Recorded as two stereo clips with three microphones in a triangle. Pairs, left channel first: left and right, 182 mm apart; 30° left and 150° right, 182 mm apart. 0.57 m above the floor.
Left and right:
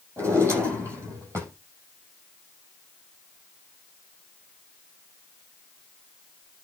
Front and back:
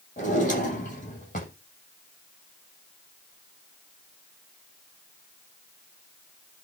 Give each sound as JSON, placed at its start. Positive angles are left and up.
{"t": 0.2, "sound": "a drawer", "azimuth_deg": -15, "distance_m": 7.5}